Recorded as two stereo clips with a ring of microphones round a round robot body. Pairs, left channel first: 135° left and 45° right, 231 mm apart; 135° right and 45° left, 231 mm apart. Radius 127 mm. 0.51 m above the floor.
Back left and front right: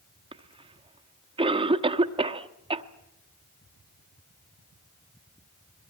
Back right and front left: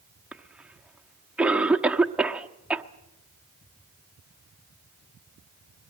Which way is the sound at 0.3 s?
30° right.